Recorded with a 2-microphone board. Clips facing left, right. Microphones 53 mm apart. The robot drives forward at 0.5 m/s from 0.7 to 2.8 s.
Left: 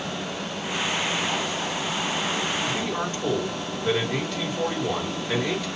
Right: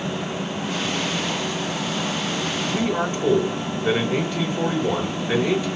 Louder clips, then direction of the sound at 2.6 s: Right 4 dB; 20° right (ahead or behind).